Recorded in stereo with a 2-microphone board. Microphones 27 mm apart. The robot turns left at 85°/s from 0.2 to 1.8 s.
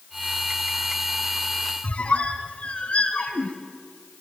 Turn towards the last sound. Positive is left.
turn(degrees=40)  # may be behind; listen again after turning